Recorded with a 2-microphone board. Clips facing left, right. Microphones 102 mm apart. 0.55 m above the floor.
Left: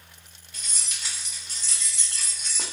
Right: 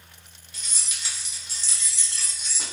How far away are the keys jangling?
About 0.9 m.